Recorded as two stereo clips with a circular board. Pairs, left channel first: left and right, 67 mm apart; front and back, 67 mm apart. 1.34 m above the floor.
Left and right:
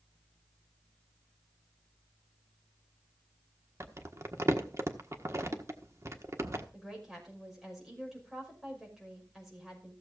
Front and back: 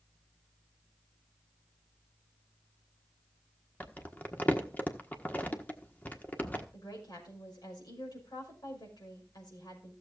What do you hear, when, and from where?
3.8 s crumpling: 60° right, 1.3 m
6.7 s a woman speaking: 5° right, 5.5 m